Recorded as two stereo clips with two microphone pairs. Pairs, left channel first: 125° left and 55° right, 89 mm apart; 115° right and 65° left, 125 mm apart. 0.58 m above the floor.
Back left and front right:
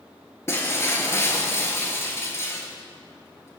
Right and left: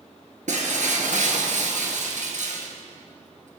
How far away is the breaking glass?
About 1.9 m.